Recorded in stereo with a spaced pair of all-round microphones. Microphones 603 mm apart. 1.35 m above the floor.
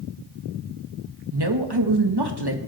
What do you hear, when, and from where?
1.3 s a woman speaking: 40° right (ahead or behind), 1.9 m